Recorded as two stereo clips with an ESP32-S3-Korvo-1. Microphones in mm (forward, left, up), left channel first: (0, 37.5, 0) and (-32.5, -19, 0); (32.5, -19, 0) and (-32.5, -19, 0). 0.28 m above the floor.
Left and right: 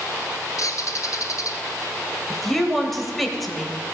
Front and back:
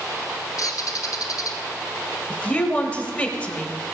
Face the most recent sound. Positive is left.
turn(degrees=-25)